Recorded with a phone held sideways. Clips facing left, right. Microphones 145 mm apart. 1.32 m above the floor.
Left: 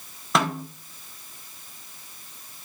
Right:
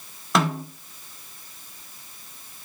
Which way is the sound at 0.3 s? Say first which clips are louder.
Right 1 dB; centre (ahead or behind).